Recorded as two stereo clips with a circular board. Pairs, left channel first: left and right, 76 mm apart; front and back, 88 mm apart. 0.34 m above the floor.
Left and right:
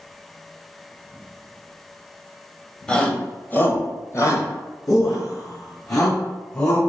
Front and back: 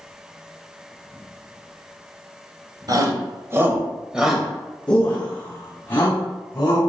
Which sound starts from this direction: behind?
A shout, at 2.9 s.